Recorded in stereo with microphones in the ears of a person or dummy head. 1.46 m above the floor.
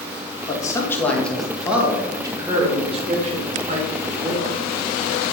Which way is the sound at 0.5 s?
15° left (ahead or behind).